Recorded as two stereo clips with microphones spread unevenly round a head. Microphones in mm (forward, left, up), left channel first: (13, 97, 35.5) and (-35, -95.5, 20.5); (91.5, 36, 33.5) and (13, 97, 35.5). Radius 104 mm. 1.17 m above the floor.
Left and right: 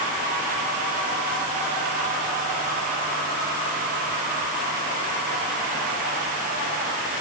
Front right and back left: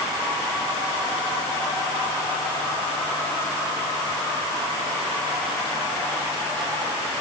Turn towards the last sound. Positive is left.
No sound to turn to.